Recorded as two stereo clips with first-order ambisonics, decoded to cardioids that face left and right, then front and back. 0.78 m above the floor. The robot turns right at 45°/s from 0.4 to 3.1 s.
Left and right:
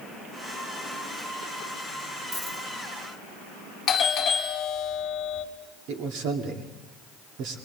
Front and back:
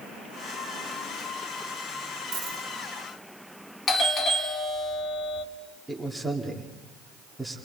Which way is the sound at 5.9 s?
95° right.